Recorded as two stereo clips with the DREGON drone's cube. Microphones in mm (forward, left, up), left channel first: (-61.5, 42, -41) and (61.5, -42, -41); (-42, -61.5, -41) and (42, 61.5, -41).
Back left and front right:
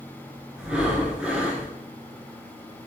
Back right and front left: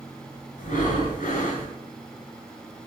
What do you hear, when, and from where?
0.6 s breathing: 120° right, 1.0 m